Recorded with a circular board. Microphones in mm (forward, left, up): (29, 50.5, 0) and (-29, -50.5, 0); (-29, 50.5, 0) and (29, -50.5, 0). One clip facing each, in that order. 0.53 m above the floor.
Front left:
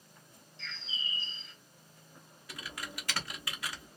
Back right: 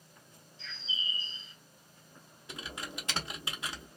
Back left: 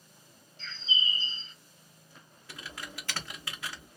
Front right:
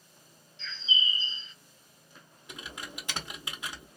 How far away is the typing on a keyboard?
About 1.0 m.